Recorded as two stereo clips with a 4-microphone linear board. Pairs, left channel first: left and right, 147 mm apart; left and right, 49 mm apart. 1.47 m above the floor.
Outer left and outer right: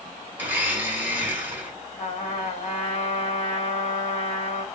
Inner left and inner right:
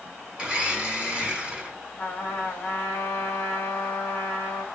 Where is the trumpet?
45° left (ahead or behind), 1.0 m.